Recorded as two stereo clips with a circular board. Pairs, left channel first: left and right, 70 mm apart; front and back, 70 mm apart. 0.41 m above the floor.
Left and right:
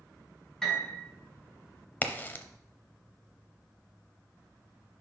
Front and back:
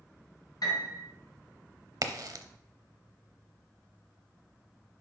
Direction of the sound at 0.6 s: 5° left.